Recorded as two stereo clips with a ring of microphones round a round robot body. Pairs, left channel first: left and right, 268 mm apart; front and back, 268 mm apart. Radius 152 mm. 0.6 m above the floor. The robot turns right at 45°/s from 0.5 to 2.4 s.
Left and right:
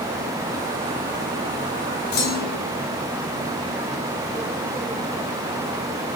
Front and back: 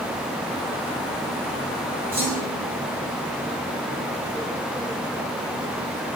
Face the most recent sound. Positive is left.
turn(degrees=110)